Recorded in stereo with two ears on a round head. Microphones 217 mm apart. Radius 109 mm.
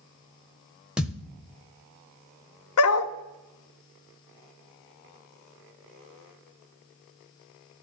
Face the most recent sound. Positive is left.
turn(degrees=65)  # may be behind; listen again after turning